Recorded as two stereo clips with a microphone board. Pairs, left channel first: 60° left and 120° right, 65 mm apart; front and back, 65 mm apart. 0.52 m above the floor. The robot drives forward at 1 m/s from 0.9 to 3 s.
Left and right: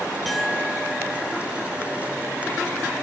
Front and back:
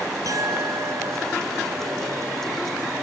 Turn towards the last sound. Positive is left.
turn(degrees=160)